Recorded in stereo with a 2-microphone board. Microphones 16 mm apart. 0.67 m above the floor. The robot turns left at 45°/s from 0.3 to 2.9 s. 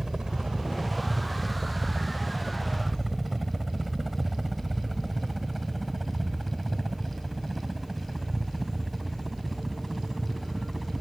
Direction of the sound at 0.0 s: 45° right (ahead or behind).